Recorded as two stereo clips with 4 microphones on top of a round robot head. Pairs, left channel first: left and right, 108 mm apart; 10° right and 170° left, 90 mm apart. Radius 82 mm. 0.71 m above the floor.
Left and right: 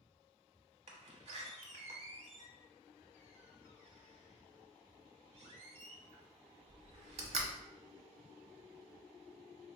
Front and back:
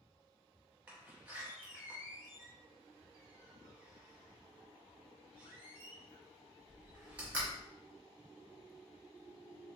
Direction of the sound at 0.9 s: 115° right.